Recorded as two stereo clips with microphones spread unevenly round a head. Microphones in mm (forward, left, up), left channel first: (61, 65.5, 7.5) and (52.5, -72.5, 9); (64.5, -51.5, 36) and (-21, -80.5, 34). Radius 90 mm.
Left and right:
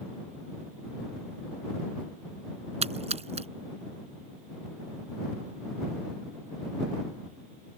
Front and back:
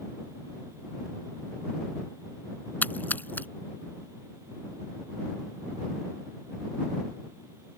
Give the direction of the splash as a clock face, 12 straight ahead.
2 o'clock.